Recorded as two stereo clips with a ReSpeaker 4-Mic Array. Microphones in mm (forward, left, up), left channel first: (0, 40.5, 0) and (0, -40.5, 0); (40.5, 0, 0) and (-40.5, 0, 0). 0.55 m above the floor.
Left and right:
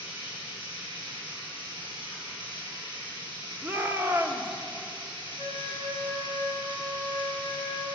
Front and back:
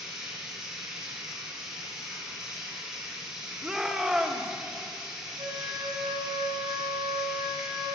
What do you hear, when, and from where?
0.0 s running water: 95° right, 5.5 m
3.6 s a shout: 100° right, 1.2 m
5.4 s a flute: 155° right, 4.5 m